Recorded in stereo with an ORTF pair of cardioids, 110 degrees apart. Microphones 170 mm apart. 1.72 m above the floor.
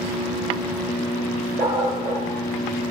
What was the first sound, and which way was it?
A dog barking, 60° right.